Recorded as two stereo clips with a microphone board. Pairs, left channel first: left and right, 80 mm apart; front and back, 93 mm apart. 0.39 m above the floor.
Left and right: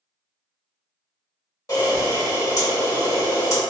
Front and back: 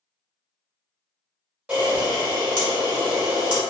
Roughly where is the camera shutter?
Left.